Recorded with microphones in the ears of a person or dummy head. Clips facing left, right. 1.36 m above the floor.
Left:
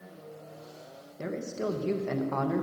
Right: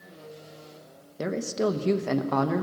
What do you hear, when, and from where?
1.2 s a man speaking: 75° right (ahead or behind), 1.0 m